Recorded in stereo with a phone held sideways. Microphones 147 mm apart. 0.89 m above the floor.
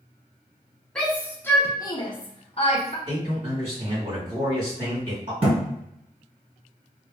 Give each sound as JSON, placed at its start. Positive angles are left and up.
{"t": 0.9, "sound": "a shout", "side_deg": 5, "distance_m": 1.0}
{"t": 3.1, "sound": "a man speaking", "side_deg": -45, "distance_m": 1.8}
{"t": 5.4, "sound": "a thud", "side_deg": -40, "distance_m": 1.8}